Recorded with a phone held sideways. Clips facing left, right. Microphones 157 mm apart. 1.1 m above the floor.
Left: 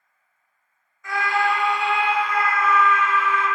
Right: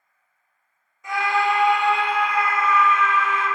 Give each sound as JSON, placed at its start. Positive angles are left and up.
{"t": 1.0, "sound": "a scream", "side_deg": -20, "distance_m": 0.8}